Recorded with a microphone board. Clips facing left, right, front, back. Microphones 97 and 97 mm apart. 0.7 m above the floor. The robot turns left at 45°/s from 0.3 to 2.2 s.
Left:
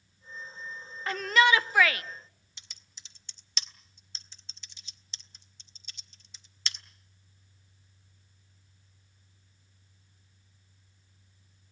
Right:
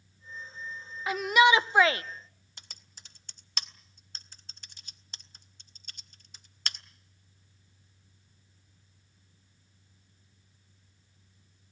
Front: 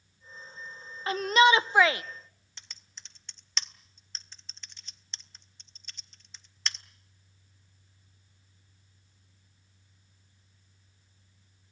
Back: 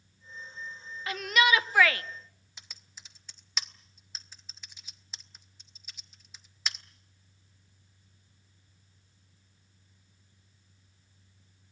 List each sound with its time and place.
1.1 s a shout: 10° right, 0.5 m; by 2.0 s 55° right, 0.5 m
2.6 s typing on a keyboard: 100° right, 1.0 m